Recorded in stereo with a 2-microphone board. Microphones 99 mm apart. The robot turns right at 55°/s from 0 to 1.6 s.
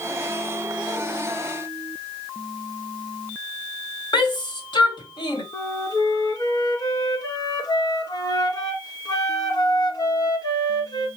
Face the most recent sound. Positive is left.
turn(degrees=35)  # may be behind; listen again after turning